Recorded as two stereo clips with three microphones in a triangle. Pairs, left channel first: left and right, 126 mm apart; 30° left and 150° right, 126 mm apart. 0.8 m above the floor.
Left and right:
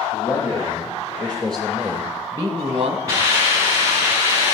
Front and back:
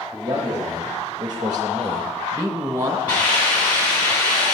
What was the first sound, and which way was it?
A man speaking, 150° left.